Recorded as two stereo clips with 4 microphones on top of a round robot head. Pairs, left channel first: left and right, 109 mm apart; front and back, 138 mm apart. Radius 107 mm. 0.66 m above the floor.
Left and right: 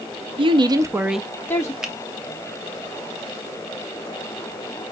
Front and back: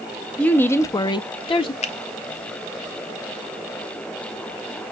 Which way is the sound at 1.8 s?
5° right.